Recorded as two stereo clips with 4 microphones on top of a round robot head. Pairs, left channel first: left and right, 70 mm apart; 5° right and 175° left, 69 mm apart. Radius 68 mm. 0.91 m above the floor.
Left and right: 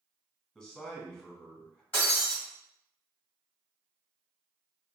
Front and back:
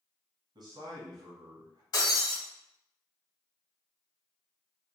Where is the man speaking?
170° left, 1.4 m.